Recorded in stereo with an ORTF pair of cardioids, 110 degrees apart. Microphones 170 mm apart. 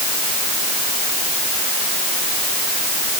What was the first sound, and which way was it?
Only background noise.